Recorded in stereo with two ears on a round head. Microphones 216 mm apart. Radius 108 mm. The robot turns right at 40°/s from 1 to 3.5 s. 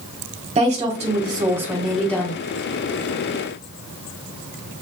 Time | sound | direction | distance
0.6 | a woman speaking | 35° right | 1.3 m